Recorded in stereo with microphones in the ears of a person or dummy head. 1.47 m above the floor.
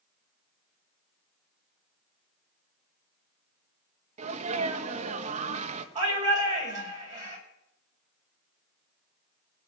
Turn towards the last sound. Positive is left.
turn(degrees=-35)  # may be behind; listen again after turning